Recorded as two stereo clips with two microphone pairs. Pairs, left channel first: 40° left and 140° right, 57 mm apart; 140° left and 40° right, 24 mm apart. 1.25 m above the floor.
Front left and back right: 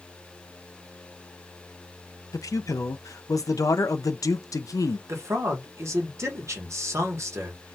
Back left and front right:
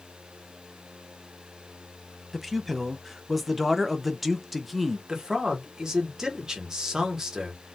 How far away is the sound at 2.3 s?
About 0.5 m.